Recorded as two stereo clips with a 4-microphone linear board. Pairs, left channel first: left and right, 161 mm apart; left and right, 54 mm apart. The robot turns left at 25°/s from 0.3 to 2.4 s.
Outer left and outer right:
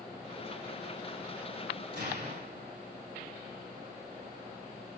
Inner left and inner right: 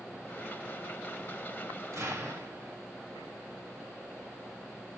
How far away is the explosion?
About 3 m.